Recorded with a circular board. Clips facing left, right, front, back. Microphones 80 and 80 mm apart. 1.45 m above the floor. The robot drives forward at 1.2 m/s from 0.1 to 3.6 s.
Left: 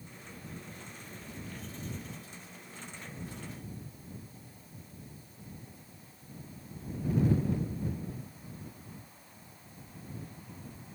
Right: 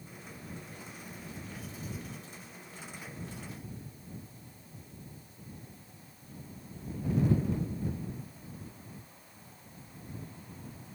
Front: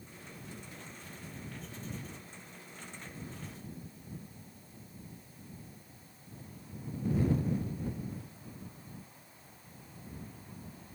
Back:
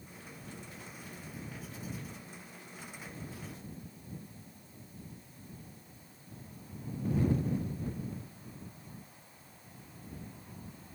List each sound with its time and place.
Only background noise.